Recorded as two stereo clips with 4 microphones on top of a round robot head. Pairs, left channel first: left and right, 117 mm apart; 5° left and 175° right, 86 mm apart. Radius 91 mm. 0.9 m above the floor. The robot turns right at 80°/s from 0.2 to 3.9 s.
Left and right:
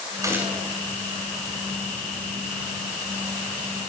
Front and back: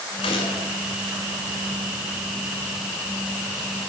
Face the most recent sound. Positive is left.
turn(degrees=-95)